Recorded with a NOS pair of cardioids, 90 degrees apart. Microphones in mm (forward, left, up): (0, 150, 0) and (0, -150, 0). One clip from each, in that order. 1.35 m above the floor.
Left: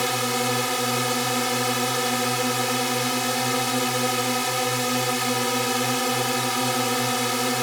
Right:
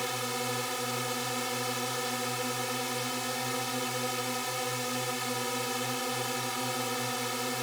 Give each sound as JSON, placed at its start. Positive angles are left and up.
{"t": 0.0, "sound": "a drone", "azimuth_deg": 65}